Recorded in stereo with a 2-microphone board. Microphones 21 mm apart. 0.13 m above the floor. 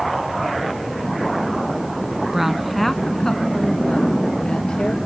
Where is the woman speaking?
20° right (ahead or behind), 1.0 m; by 5.0 s 65° left (ahead or behind), 2.5 m.